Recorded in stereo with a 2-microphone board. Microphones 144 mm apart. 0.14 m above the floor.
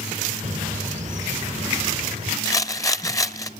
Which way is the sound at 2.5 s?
25° left (ahead or behind).